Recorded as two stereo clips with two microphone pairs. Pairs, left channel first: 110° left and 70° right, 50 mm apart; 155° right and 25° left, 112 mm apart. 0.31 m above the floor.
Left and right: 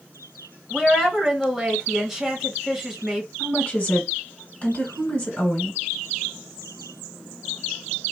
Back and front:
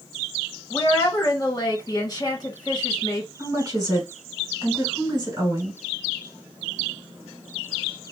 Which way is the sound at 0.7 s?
150° right.